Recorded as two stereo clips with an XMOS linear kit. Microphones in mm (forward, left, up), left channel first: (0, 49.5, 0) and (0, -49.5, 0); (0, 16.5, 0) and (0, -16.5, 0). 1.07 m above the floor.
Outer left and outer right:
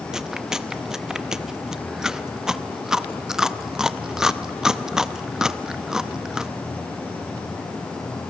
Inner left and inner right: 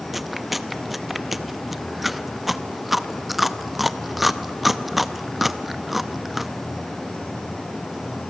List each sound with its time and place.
0.1 s chewing: 5° right (ahead or behind), 0.7 m